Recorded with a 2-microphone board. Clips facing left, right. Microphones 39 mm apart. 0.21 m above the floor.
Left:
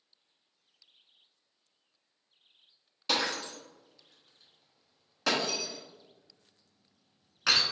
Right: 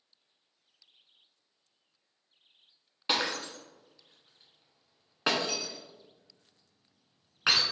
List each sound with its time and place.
3.1 s breaking glass: 30° right (ahead or behind), 0.9 m